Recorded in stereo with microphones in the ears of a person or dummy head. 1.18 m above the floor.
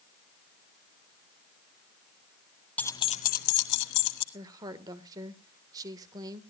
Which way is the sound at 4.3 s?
25° right (ahead or behind).